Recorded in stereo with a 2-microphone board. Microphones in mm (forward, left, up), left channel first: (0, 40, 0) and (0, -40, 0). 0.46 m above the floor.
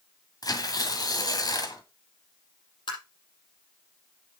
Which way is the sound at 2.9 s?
90° left.